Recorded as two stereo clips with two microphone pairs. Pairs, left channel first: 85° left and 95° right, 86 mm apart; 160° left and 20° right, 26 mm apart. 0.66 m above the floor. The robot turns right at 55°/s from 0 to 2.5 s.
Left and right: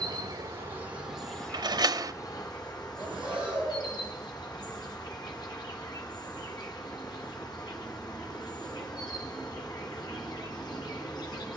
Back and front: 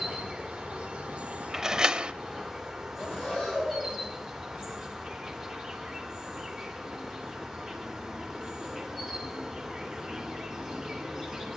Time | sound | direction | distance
0.0 | an insect | 75° right | 2.5 m
1.5 | a door slam | 90° right | 0.6 m
3.0 | breathing | 170° right | 8 m